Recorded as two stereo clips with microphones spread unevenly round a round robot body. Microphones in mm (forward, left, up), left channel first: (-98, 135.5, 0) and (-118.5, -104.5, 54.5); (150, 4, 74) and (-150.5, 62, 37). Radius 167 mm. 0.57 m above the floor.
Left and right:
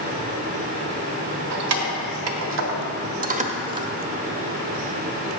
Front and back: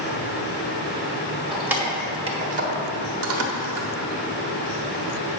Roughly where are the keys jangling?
Right.